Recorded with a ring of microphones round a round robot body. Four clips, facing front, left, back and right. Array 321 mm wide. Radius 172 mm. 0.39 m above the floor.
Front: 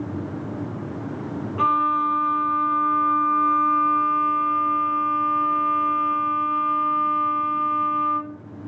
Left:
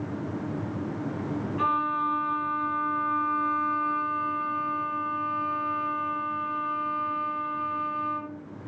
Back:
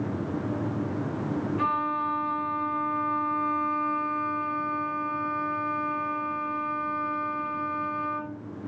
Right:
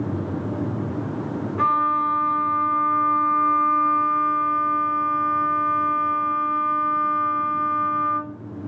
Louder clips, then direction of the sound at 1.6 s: Right 7 dB, front 10 dB; 45° right.